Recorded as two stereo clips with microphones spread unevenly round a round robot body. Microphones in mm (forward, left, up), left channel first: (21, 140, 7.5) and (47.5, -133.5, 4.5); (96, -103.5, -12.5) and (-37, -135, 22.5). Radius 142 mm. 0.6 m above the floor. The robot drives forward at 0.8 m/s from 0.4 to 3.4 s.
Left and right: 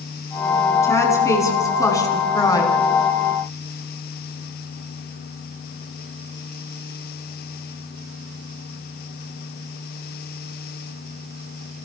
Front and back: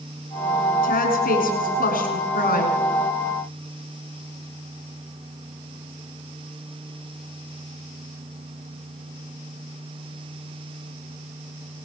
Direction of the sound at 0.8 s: 15° left.